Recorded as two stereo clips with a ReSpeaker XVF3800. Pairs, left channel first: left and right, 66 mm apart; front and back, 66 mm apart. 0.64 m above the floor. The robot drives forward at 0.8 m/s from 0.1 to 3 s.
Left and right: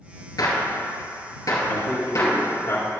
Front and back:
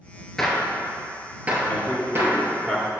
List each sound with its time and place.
0.4 s a gunshot: 80° left, 1.5 m; by 2.5 s 135° left, 2 m
1.7 s a man speaking: 65° left, 1.9 m; by 3.0 s 110° left, 1.8 m